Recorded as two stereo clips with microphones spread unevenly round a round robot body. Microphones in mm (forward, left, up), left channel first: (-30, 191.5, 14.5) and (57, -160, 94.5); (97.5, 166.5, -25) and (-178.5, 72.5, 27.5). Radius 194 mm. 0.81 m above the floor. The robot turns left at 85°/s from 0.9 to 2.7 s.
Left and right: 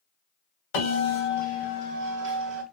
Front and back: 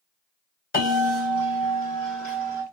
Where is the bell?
80° left, 2.5 m; by 2.6 s 65° right, 2.5 m.